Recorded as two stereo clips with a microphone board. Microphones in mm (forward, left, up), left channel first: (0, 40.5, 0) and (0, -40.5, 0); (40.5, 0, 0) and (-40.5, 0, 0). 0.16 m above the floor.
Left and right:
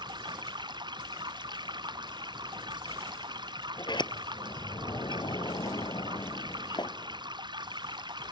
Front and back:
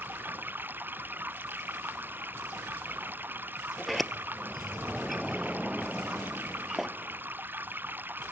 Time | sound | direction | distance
0.0 | running water | 115° right | ?
3.8 | a sliding door | 90° left | ?